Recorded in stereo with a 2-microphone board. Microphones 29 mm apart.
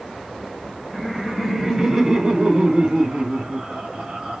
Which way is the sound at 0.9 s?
Centre (ahead or behind).